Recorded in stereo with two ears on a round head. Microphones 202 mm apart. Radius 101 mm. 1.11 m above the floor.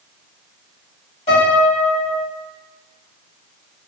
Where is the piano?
30° left (ahead or behind), 1.6 m.